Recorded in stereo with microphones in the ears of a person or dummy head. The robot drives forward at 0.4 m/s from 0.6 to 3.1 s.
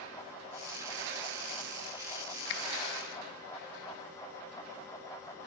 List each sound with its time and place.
2.5 s a finger snap: 65° left (ahead or behind), 0.6 m; by 2.6 s 60° left (ahead or behind), 0.6 m